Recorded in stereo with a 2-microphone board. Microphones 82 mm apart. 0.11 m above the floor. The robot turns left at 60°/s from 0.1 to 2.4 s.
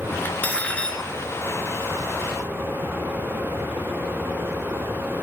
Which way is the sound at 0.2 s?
20° left (ahead or behind).